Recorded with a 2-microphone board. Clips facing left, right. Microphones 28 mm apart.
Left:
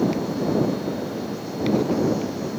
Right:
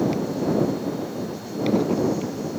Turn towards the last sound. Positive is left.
No sound to turn to.